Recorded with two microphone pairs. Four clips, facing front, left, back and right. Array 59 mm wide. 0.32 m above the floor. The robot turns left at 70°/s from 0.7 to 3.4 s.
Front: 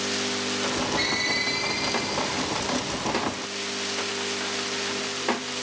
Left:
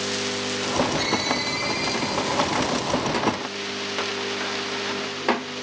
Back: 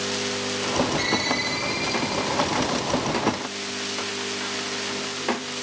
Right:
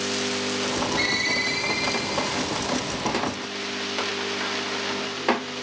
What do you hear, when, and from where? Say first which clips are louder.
1.0 s a ringtone: even, back 2 dB; 35° right, 7.5 m; by 2.4 s 135° right, 7.5 m